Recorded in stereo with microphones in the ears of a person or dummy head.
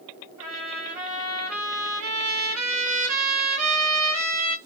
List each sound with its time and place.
0.4 s a trumpet: 90° right, 1.9 m